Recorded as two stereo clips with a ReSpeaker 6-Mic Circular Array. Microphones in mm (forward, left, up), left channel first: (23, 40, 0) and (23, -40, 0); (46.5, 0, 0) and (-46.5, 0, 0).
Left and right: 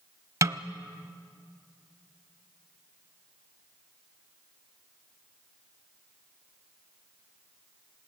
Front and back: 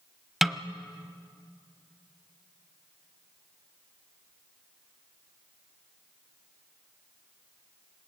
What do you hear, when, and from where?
0.4 s a snare drum: 95° right, 0.7 m